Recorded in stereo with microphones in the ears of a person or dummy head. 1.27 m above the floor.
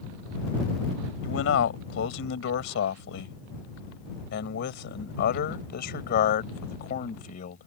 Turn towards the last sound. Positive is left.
turn(degrees=50)  # may be behind; listen again after turning